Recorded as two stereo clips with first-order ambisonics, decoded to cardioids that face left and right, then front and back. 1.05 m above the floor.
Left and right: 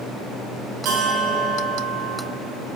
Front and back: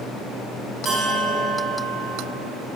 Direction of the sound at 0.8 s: 115° right.